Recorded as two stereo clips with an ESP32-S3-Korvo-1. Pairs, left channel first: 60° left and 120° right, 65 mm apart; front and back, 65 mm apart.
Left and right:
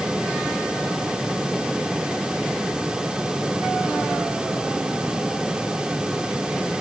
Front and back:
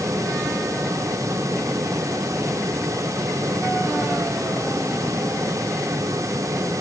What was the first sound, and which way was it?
Only background noise.